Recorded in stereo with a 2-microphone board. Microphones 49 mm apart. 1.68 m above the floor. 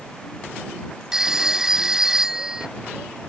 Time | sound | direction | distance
1.1 | a phone ringing | 10° right (ahead or behind) | ?